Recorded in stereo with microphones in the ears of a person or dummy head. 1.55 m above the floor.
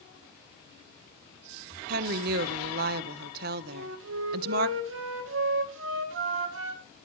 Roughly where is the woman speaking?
Right.